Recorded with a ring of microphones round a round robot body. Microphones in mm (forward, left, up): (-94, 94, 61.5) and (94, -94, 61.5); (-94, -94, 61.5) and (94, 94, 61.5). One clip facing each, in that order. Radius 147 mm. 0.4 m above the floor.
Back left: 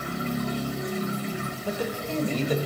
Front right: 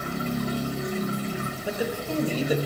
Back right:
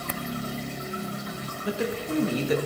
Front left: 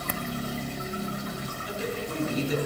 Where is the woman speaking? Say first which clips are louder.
Front right 1 dB, back right 5 dB; 125° right, 1.4 m.